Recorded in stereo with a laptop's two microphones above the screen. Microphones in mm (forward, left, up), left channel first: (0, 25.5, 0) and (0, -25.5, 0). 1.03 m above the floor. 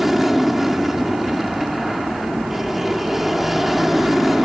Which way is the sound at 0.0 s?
5° right (ahead or behind).